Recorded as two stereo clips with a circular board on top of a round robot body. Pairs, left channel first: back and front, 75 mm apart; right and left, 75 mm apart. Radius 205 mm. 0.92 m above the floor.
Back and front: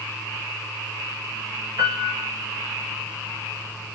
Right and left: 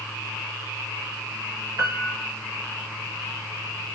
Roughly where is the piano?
Ahead left.